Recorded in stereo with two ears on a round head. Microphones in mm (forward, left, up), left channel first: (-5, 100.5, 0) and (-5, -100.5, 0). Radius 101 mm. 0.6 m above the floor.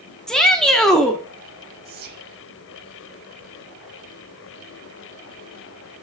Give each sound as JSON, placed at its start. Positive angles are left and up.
{"t": 0.3, "sound": "a shout", "side_deg": 0, "distance_m": 0.8}
{"t": 1.9, "sound": "whispering", "side_deg": -45, "distance_m": 1.5}